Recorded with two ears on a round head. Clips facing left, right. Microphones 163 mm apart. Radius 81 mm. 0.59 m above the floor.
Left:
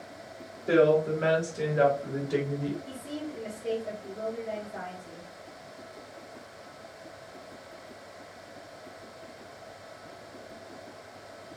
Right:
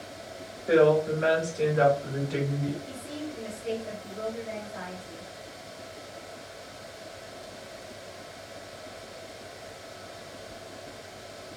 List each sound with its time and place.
0.7 s a woman speaking: 35° left (ahead or behind), 1.3 m; by 2.8 s 25° left (ahead or behind), 1.6 m
2.9 s a woman speaking: 35° left (ahead or behind), 1.0 m